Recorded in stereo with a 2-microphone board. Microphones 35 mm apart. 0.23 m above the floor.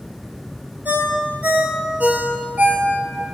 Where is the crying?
No crying in this recording.